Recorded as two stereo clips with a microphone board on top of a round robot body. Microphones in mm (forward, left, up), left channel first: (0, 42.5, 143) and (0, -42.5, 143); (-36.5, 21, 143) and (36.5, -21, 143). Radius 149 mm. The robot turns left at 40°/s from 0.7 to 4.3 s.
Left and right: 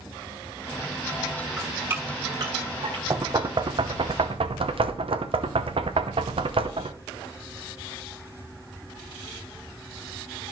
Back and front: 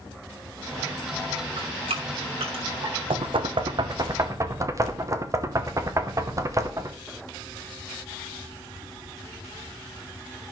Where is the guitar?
No guitar in this recording.